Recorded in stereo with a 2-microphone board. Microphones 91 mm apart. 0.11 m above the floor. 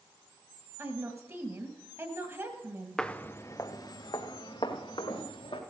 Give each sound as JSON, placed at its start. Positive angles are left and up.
{"t": 0.8, "sound": "a woman speaking", "side_deg": -35, "distance_m": 1.8}
{"t": 3.0, "sound": "footsteps", "side_deg": 5, "distance_m": 0.9}